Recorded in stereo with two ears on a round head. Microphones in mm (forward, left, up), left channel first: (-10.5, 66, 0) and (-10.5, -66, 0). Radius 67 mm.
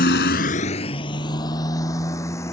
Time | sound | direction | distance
0.0 | a motorcycle | 65° left (ahead or behind) | ?